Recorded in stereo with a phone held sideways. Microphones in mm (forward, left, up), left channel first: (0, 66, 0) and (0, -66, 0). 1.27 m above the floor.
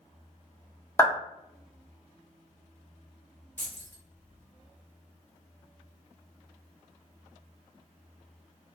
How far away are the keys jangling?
About 0.8 m.